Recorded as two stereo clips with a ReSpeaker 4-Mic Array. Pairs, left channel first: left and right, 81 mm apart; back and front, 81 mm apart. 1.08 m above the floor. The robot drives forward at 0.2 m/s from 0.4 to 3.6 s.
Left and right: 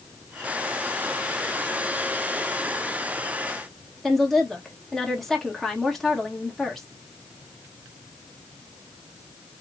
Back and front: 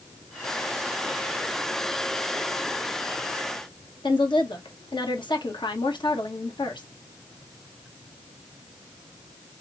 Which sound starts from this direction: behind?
A woman speaking, at 4.0 s.